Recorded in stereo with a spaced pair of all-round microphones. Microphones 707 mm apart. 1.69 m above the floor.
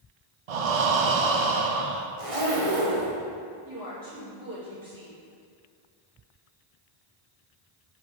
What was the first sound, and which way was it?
Breathing, 60° right (ahead or behind).